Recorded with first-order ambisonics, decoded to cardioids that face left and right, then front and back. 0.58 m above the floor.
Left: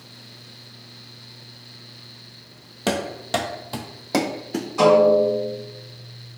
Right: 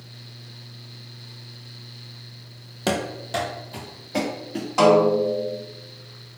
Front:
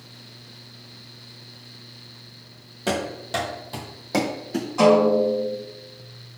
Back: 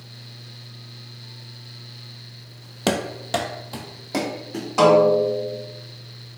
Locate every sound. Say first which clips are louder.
2.9 s running footsteps: left 1 dB, back 2 dB; straight behind, 0.7 m; by 4.7 s 75° left, 1.2 m
4.8 s a snare drum: left 2 dB, back 2 dB; 140° right, 1.9 m